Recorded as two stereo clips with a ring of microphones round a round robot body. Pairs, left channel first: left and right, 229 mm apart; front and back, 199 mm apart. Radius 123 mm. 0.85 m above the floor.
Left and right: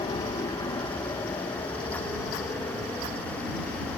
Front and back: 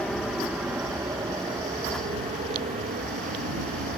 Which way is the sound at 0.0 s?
80° left.